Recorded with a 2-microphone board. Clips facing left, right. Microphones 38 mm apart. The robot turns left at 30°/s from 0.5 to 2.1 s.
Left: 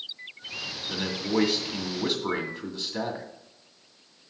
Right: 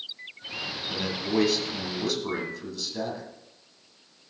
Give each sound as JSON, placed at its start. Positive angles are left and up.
{"t": 0.9, "sound": "a man speaking", "azimuth_deg": -175, "distance_m": 1.9}